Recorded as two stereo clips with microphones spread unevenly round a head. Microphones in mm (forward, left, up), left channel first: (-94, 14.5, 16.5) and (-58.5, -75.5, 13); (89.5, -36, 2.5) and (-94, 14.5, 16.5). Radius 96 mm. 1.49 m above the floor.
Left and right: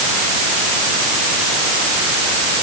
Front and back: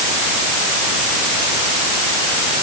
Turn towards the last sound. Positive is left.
No sound to turn to.